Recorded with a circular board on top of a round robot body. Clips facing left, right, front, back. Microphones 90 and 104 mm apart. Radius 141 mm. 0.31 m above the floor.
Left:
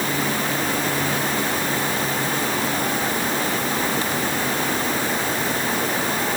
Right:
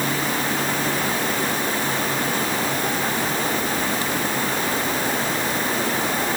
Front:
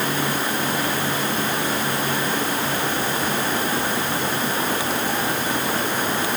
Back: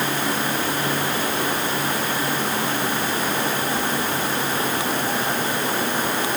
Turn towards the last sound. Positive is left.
No sound to turn to.